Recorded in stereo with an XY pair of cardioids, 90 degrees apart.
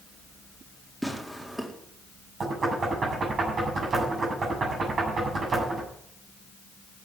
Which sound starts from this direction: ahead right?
Knocking, at 2.4 s.